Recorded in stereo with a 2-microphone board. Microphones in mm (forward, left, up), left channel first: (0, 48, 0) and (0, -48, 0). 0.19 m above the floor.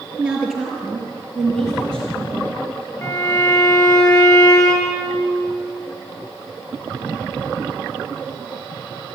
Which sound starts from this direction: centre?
A woman speaking, at 0.2 s.